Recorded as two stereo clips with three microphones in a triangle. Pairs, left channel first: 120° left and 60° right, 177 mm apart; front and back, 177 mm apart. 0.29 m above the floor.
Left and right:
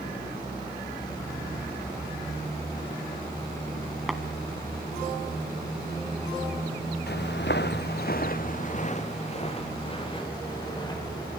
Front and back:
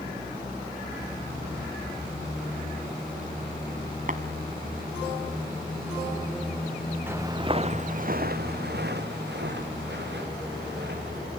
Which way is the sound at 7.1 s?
100° left.